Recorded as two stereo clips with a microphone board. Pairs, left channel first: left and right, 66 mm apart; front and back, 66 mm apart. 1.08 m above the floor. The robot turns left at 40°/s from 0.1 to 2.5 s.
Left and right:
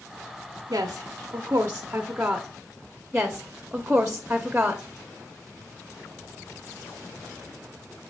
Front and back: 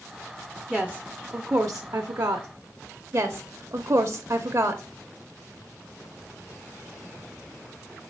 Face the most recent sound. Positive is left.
turn(degrees=-160)